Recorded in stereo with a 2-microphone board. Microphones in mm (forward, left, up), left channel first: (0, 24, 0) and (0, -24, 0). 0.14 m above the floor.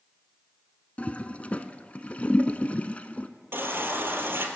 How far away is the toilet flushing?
About 0.6 m.